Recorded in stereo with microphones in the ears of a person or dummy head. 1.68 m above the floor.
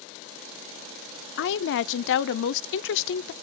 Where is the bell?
No bell in this recording.